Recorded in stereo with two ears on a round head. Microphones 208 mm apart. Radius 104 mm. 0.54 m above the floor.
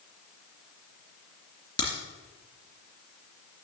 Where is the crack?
20° left (ahead or behind), 2.5 m.